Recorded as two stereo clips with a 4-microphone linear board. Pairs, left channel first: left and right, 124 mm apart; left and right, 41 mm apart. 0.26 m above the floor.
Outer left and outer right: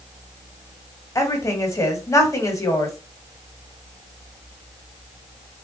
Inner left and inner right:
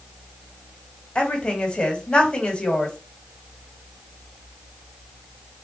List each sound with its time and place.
1.1 s a woman speaking: 25° left (ahead or behind), 1.1 m